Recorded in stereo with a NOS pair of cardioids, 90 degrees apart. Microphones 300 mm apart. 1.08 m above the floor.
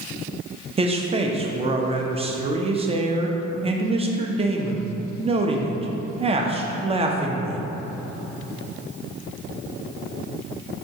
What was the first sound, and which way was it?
A man speaking, 20° right.